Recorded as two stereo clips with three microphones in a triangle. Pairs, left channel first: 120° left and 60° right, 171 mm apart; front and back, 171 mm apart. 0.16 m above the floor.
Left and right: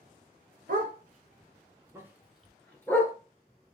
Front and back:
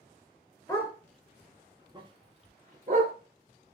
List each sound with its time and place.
0.7 s a dog barking: 70° right, 1.0 m; by 3.1 s 165° right, 1.3 m